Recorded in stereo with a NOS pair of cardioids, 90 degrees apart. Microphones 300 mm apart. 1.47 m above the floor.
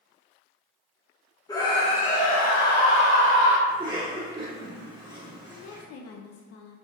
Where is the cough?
15° right, 1.5 m.